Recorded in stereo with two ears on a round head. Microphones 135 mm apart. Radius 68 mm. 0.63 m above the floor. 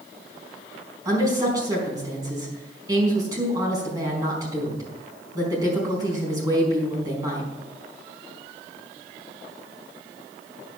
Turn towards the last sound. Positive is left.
turn(degrees=-25)  # may be behind; listen again after turning